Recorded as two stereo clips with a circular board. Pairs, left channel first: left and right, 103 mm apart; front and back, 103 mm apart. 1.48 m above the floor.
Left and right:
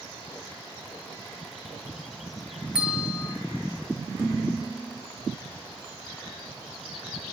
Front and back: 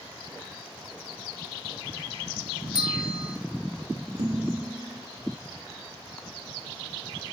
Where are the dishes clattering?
160° right, 1.9 m.